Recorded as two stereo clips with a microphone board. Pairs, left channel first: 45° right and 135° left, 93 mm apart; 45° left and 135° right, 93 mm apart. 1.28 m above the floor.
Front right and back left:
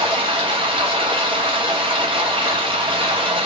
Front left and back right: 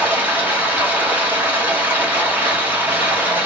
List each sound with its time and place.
0.0 s running water: 155° left, 1.0 m